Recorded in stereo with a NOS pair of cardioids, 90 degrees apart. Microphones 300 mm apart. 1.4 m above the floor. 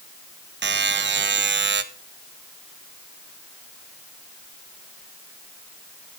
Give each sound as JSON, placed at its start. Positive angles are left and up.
{"t": 0.6, "sound": "a buzzer", "azimuth_deg": -35, "distance_m": 1.1}